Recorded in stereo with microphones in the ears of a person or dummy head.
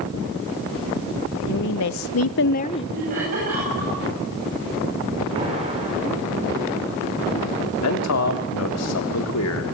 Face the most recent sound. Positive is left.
turn(degrees=85)